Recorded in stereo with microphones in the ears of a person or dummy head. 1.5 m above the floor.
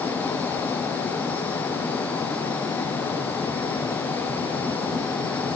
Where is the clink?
No clink in this recording.